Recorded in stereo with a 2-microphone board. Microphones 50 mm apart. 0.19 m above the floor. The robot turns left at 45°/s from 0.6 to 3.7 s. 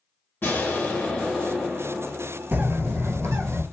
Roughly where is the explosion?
Ahead left.